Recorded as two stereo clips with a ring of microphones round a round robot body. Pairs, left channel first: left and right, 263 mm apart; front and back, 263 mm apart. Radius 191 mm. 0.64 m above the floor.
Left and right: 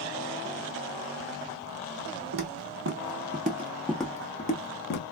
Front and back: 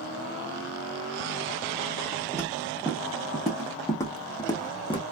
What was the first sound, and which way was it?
Footsteps, 100° right.